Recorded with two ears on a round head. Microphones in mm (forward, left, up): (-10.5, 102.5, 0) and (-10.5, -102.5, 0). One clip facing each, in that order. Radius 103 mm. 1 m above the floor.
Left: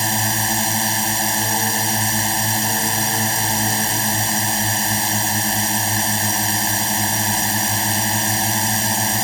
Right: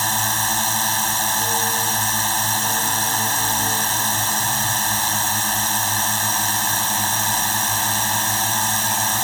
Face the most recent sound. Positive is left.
turn(degrees=20)  # may be behind; listen again after turning